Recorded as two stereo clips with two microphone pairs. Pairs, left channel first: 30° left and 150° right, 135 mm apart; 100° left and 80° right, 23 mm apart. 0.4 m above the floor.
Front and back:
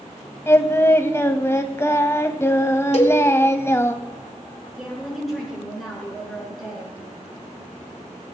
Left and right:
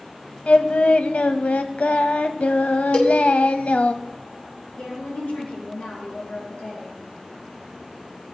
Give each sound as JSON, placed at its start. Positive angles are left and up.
{"t": 0.5, "sound": "singing", "azimuth_deg": 100, "distance_m": 0.8}
{"t": 2.9, "sound": "a cowbell", "azimuth_deg": 65, "distance_m": 1.8}
{"t": 4.8, "sound": "a woman speaking", "azimuth_deg": 120, "distance_m": 5.0}